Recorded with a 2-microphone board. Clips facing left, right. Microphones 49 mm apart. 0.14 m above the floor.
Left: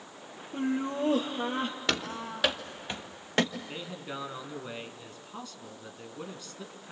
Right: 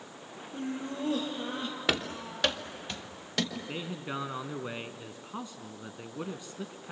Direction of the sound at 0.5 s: 30° left (ahead or behind).